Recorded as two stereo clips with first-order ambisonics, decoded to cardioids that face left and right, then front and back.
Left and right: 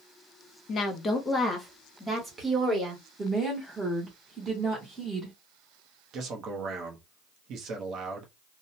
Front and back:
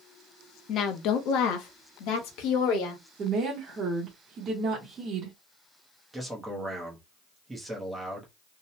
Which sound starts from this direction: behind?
A woman speaking, at 3.2 s.